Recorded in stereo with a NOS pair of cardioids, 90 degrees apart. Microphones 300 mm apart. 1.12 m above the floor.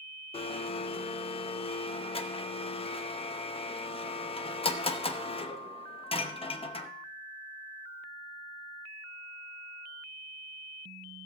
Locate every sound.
0.3 s a blender: 20° left, 0.9 m